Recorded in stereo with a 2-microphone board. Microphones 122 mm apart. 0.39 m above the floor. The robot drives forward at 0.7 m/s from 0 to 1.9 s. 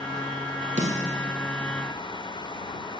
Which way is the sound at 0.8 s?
80° right.